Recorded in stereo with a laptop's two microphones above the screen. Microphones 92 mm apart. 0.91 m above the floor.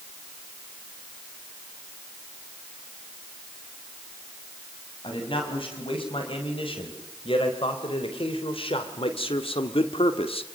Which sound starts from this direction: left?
A man speaking, at 5.0 s.